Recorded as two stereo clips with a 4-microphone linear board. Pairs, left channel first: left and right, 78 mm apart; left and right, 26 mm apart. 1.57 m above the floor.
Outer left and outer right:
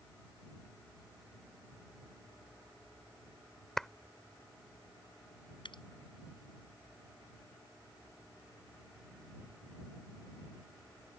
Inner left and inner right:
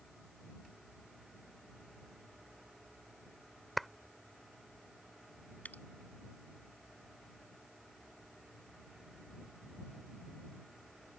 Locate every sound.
3.8 s a clap: 5° left (ahead or behind)
5.7 s dripping: 80° left